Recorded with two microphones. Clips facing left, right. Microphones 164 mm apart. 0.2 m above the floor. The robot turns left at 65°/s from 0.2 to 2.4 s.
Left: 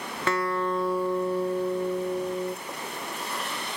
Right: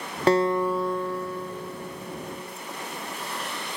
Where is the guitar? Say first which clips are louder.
Right 6 dB; 145° right, 0.5 m; by 2.6 s 80° left, 0.5 m.